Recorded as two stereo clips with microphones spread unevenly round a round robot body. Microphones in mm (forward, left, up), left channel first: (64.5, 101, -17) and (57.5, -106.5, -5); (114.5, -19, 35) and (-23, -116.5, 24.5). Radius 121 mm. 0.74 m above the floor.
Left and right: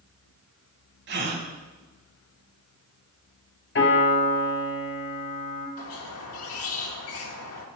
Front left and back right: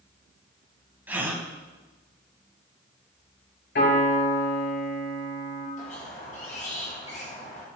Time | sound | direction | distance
1.1 | a gasp | 65° right | 1.9 m
3.8 | a piano | 70° left | 6 m
5.8 | a squeak | 95° left | 1.4 m